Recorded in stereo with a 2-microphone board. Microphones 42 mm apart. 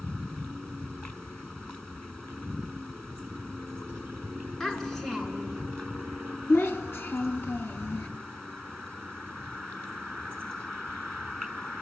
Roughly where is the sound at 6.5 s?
Left.